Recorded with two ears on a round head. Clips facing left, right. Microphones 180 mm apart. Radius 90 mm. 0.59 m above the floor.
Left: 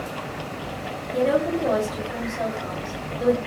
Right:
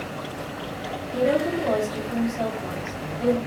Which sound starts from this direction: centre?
A woman speaking, at 1.1 s.